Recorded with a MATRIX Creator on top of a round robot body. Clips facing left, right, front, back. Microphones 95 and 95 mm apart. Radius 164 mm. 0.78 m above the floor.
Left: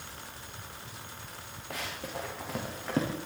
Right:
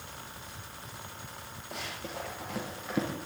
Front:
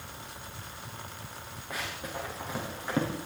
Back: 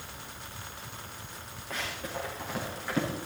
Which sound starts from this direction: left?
Running footsteps, at 1.7 s.